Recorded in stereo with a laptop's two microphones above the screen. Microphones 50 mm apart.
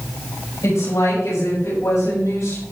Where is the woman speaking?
85° left, 5.5 m; by 2.6 s 75° left (ahead or behind), 5.5 m.